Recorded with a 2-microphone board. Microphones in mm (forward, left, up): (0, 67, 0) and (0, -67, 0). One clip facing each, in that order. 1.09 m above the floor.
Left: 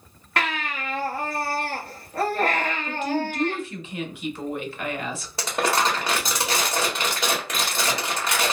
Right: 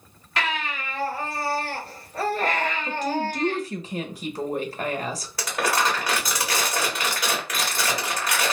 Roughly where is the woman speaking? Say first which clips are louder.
Even; right.